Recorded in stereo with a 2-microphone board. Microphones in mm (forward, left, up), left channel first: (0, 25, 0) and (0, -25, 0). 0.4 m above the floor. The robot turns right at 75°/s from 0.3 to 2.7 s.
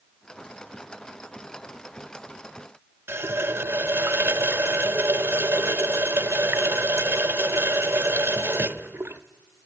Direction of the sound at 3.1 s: 50° right (ahead or behind).